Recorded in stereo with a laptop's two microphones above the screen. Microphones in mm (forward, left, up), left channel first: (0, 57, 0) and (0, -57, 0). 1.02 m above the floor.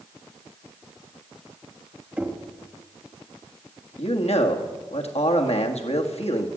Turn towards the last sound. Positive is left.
turn(degrees=65)  # may be behind; listen again after turning